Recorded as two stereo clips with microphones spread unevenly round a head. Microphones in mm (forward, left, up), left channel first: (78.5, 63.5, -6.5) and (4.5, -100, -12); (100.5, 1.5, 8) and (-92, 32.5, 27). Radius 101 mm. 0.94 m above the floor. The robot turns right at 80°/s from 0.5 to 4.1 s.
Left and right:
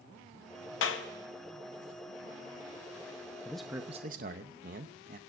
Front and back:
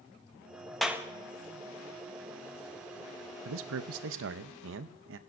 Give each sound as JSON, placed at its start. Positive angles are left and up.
{"t": 0.8, "sound": "a clap", "azimuth_deg": 80, "distance_m": 0.9}
{"t": 3.5, "sound": "a man speaking", "azimuth_deg": 145, "distance_m": 0.6}